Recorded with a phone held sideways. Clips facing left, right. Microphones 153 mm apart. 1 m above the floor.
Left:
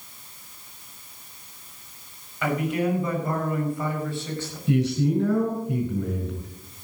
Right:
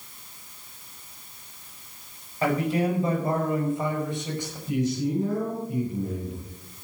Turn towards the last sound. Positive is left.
turn(degrees=75)  # may be behind; listen again after turning